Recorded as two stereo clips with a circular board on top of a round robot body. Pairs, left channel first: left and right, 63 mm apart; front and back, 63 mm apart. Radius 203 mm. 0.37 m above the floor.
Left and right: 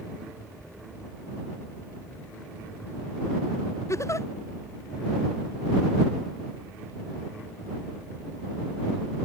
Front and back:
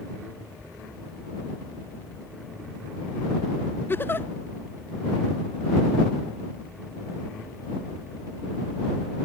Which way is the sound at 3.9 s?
55° left.